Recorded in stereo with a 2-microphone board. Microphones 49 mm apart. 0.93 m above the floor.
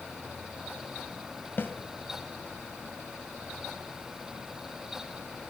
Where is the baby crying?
I don't hear a baby crying.